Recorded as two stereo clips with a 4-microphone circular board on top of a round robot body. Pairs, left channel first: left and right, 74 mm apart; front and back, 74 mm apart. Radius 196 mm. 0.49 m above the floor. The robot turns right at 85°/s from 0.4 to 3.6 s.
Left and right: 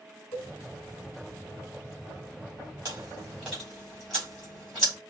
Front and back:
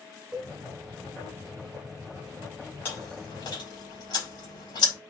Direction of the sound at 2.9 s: 60° right.